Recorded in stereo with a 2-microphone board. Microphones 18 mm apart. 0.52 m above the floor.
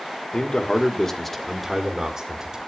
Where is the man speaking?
50° left (ahead or behind), 1.3 m; by 2.6 s 40° right (ahead or behind), 1.6 m.